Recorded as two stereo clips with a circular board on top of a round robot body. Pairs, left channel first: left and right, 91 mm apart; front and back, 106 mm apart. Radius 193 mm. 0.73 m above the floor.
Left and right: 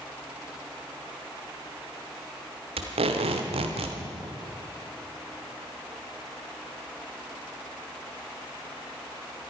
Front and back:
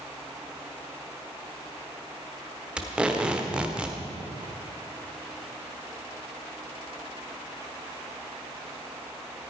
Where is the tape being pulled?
100° right, 1.0 m.